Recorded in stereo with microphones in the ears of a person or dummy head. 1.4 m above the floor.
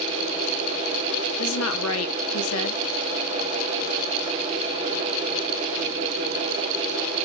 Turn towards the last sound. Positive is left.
turn(degrees=80)